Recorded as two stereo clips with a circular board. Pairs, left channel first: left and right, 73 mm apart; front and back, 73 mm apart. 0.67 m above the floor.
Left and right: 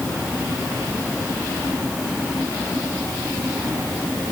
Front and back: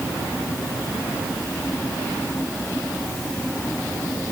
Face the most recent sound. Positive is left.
No sound to turn to.